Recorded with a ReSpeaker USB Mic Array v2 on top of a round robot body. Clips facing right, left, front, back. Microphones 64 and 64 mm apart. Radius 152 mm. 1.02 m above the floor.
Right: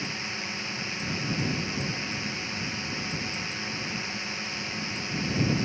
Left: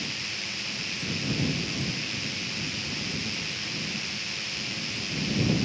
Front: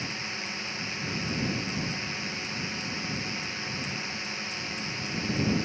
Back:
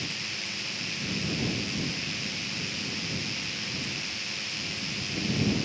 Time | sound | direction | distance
0.0 | a drone | 45° right | ?